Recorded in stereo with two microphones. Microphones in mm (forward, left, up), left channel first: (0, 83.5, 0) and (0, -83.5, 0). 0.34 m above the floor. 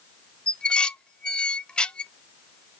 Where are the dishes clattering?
5° left (ahead or behind), 0.5 m.